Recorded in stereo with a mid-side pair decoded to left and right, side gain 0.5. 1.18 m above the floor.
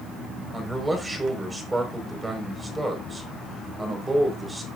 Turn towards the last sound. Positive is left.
turn(degrees=-20)